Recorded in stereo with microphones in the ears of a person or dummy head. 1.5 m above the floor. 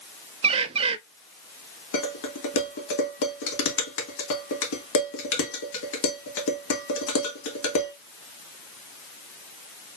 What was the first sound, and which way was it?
A bird, 30° right (ahead or behind).